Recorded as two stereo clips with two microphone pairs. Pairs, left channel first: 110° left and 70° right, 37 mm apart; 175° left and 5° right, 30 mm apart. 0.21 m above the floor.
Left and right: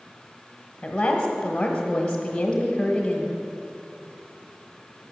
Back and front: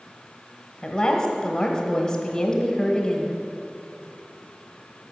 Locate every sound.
0.8 s a woman speaking: 160° left, 1.0 m